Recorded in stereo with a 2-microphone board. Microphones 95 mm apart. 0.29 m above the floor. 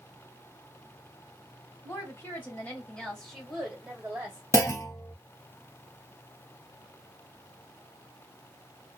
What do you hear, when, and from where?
1.8 s a woman speaking: 30° left (ahead or behind), 1.6 m; by 4.4 s 20° right (ahead or behind), 1.3 m
4.5 s a clunk: 30° left (ahead or behind), 0.6 m